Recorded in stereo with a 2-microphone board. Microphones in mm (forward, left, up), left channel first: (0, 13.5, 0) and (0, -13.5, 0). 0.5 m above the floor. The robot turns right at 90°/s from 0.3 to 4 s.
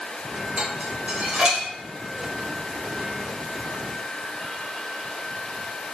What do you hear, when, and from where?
0.6 s dishes clattering: 50° right (ahead or behind), 0.8 m; by 1.6 s 10° right (ahead or behind), 0.8 m